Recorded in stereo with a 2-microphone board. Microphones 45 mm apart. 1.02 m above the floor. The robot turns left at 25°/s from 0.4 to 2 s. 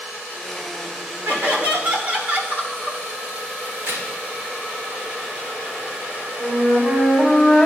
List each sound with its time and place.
1.2 s laughter: 50° right (ahead or behind), 1.9 m; by 3.0 s 35° right (ahead or behind), 1.9 m
3.7 s a crack: 70° right (ahead or behind), 2.5 m
6.4 s a flute: 25° right (ahead or behind), 1.9 m